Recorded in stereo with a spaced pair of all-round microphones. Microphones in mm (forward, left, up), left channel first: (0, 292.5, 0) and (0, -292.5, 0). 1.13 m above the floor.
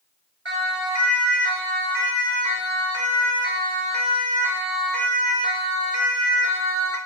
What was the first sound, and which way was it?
A siren, 50° right (ahead or behind).